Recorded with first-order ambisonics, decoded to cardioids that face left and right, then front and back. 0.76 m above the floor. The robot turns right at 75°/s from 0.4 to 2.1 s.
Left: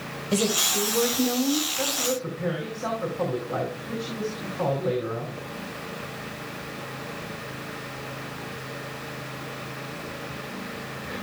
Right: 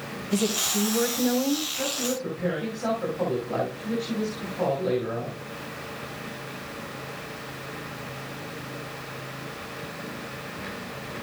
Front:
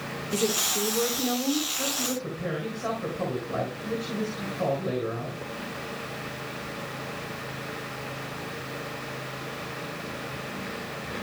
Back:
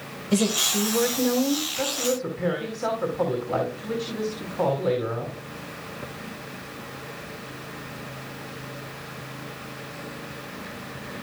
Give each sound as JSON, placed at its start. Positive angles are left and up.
{"t": 0.3, "sound": "a woman speaking", "azimuth_deg": 135, "distance_m": 4.0}
{"t": 1.8, "sound": "a woman speaking", "azimuth_deg": 160, "distance_m": 5.0}